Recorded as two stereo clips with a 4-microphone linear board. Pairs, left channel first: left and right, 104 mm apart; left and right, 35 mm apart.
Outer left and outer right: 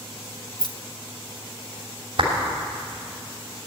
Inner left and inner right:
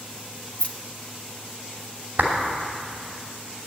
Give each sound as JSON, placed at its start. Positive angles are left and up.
{"t": 0.6, "sound": "keys jangling", "side_deg": 45, "distance_m": 0.7}
{"t": 2.2, "sound": "a clap", "side_deg": -55, "distance_m": 2.5}